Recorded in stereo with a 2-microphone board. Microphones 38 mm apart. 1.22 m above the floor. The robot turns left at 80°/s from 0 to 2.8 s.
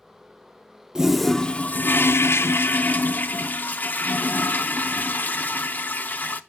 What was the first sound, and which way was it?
A toilet flushing, 165° right.